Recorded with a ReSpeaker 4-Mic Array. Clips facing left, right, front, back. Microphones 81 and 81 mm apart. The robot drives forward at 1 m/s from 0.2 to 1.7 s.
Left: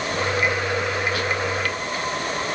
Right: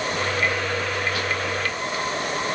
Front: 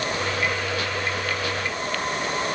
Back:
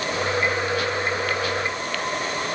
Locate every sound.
Only background noise.